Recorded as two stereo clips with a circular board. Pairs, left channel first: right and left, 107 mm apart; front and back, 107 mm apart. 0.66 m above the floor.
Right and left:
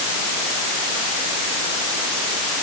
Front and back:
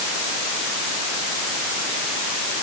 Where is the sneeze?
I don't hear a sneeze.